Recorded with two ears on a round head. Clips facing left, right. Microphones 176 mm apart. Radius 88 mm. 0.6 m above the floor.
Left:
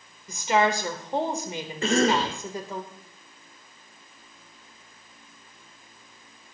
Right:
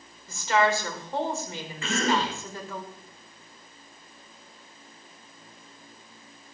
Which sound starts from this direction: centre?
A woman speaking, at 0.3 s.